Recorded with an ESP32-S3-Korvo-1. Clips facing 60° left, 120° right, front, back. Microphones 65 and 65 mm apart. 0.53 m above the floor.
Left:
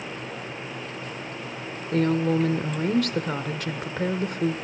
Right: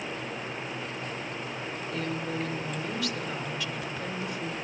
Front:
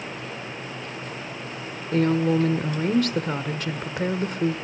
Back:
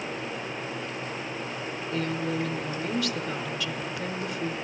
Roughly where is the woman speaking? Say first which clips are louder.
Left 12 dB, front 9 dB; ahead left.